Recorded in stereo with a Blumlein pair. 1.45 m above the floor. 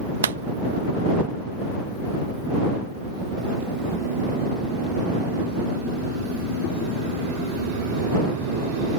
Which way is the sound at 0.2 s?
65° right.